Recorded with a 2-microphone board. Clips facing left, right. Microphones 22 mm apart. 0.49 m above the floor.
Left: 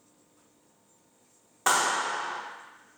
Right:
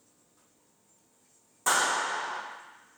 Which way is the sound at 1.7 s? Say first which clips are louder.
Left 1 dB; 35° left (ahead or behind).